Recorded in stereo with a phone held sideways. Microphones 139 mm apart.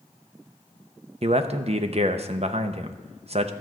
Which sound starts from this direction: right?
A man speaking, at 1.2 s.